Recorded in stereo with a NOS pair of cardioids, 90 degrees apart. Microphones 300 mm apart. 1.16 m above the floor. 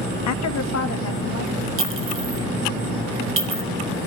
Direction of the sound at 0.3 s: 65° left.